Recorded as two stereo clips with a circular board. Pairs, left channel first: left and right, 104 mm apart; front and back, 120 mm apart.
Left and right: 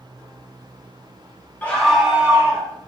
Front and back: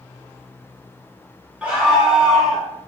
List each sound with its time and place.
1.6 s a scream: 120° left, 1.2 m; by 2.7 s 90° right, 1.4 m